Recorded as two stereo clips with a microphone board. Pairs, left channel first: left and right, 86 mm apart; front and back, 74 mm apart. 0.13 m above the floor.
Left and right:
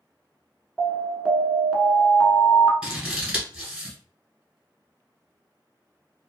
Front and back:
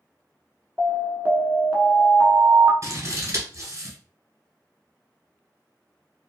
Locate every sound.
0.8 s an alarm: 165° right, 0.8 m
2.8 s scissors: 160° right, 1.2 m